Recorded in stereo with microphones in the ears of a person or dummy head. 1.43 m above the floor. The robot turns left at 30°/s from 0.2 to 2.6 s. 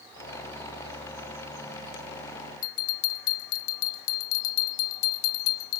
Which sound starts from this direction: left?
A bell, at 2.6 s.